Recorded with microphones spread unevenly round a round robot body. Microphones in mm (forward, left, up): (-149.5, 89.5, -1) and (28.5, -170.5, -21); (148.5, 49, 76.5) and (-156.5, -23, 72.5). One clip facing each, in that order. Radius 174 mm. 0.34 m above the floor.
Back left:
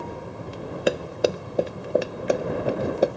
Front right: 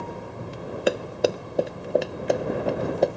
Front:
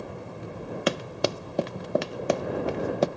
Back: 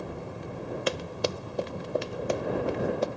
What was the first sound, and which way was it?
Running footsteps, 35° left.